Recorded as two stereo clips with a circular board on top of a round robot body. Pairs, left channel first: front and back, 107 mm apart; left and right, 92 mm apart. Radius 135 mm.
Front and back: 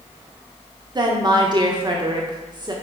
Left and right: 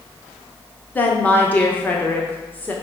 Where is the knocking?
I don't hear knocking.